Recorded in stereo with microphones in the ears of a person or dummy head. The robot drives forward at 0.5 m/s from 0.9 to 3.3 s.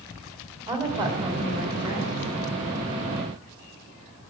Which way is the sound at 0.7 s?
25° right (ahead or behind).